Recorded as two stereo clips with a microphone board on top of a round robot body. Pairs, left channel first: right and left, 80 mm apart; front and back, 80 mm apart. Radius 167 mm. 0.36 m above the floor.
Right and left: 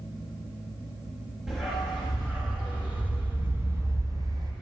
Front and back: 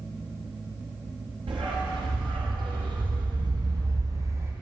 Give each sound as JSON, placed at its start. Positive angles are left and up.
{"t": 1.5, "sound": "a dog barking", "azimuth_deg": 175, "distance_m": 4.0}